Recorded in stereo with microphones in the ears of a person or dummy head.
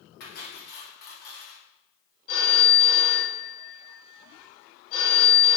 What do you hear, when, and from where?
0.2 s cutlery clinking: 65° left (ahead or behind), 1.4 m
2.3 s a phone ringing: 55° left (ahead or behind), 1.3 m